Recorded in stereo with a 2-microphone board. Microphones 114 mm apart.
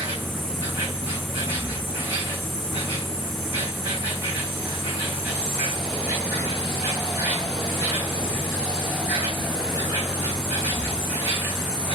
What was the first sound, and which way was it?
An insect, 20° right (ahead or behind).